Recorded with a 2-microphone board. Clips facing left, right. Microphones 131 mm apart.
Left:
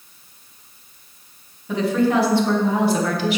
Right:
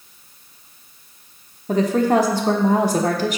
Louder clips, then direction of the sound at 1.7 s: Right 2 dB; 40° right (ahead or behind).